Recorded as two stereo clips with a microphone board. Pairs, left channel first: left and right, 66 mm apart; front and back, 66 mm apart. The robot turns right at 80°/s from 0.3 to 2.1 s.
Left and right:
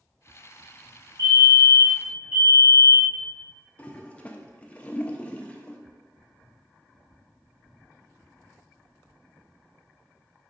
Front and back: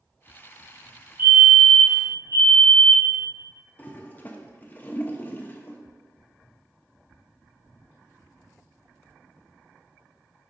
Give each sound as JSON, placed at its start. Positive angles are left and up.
{"t": 1.2, "sound": "a fire alarm", "azimuth_deg": 125, "distance_m": 2.5}
{"t": 3.8, "sound": "a toilet flushing", "azimuth_deg": 30, "distance_m": 0.7}